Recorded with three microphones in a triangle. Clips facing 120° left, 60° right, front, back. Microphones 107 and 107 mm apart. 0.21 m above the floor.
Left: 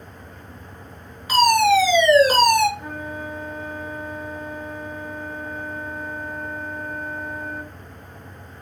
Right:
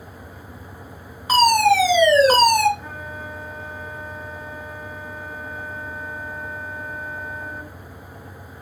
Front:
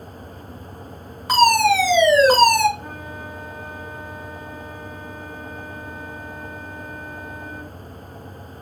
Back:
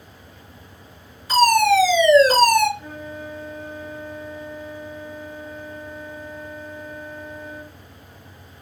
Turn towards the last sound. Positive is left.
turn(degrees=30)